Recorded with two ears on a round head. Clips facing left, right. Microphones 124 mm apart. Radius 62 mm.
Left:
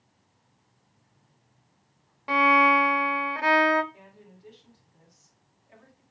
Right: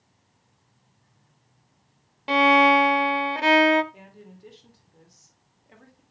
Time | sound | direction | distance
2.3 | a violin | 30° right (ahead or behind) | 0.6 m
3.9 | a woman speaking | 60° right (ahead or behind) | 2 m